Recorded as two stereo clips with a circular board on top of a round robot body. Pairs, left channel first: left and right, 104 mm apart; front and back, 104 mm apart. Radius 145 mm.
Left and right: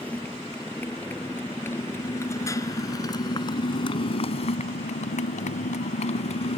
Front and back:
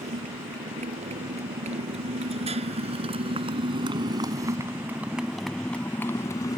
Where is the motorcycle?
165° left; by 6.6 s 60° left.